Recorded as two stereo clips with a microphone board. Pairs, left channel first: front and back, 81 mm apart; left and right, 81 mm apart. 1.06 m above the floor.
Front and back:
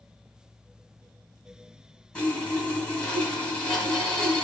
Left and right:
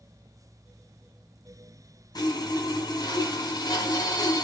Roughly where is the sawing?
Ahead left.